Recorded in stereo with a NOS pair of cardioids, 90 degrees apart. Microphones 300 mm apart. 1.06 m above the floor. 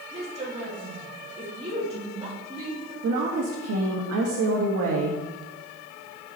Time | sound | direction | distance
0.1 | a woman speaking | 20° right | 2 m
3.0 | a woman speaking | 55° right | 1.4 m